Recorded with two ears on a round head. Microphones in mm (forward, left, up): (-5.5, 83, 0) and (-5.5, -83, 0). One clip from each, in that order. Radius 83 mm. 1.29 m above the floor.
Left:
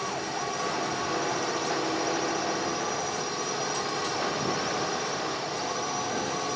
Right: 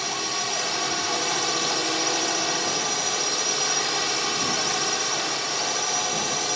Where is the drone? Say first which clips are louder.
Right 5 dB; 65° right (ahead or behind); by 6.6 s 60° right (ahead or behind).